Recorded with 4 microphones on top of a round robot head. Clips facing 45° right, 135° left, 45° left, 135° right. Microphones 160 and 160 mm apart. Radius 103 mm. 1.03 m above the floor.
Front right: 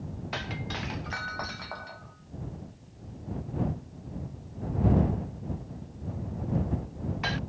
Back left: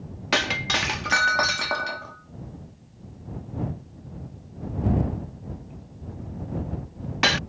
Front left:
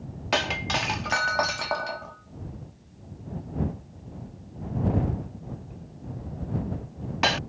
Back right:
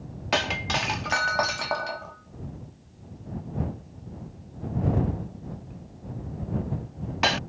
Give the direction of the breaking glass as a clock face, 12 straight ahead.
7 o'clock.